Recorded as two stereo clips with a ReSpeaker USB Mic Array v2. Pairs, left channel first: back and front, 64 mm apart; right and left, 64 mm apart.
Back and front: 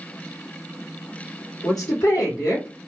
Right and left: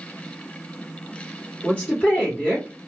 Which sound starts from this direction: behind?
A woman speaking, at 1.6 s.